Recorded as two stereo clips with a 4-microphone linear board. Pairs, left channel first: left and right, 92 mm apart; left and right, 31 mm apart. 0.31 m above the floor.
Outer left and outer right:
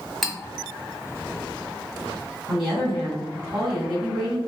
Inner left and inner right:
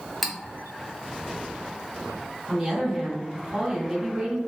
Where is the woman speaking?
5° right (ahead or behind), 1.9 m.